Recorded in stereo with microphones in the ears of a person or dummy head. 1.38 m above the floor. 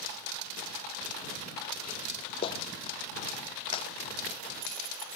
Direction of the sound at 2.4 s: 30° left (ahead or behind).